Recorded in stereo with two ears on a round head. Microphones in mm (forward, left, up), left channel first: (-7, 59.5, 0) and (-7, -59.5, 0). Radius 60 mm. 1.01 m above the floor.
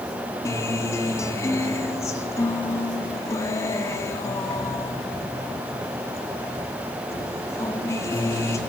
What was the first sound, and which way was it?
A guitar, 20° left (ahead or behind).